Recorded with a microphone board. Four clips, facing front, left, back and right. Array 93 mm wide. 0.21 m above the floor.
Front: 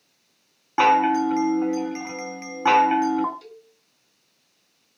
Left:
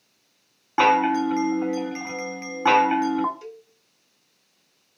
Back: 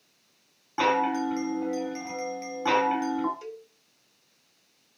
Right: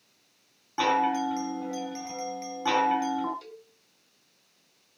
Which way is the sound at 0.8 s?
50° left.